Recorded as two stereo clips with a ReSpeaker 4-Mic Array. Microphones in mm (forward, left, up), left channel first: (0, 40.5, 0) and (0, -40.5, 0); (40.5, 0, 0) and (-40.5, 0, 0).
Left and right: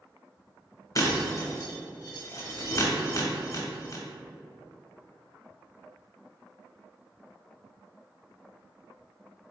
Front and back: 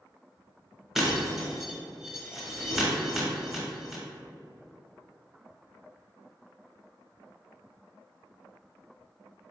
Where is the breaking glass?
95° left, 1.0 m.